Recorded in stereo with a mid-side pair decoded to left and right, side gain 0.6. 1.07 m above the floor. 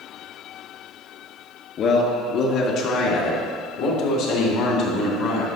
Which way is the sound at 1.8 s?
50° left.